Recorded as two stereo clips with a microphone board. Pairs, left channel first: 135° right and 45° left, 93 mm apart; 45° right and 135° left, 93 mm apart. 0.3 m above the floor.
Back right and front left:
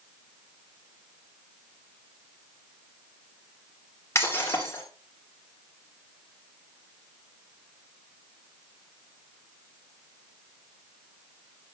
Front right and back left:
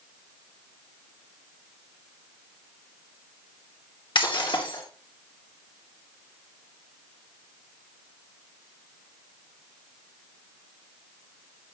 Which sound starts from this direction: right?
Breaking glass, at 4.2 s.